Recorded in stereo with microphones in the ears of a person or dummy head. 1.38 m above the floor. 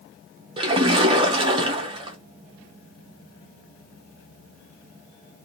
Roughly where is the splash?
Right.